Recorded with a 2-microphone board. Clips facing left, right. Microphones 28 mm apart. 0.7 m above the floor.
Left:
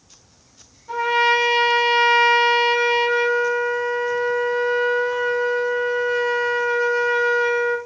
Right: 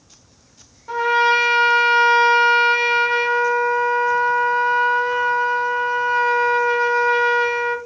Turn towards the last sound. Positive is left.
turn(degrees=-40)  # may be behind; listen again after turning